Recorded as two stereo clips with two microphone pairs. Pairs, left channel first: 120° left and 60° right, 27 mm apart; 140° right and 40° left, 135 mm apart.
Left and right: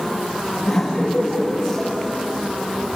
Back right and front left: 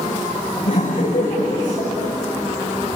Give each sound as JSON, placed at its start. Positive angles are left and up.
{"t": 0.6, "sound": "laughter", "azimuth_deg": -155, "distance_m": 8.5}